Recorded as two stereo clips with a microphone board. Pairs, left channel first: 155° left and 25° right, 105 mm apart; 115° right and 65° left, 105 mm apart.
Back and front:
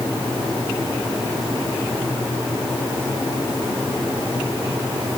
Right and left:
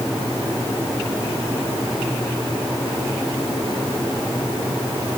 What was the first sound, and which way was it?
Only background noise.